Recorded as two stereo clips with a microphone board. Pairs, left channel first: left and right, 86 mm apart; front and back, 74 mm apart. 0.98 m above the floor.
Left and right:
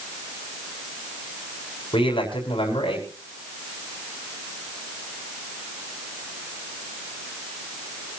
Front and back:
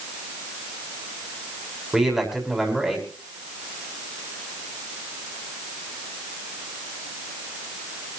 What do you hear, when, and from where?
1.9 s a man speaking: 95° left, 6.5 m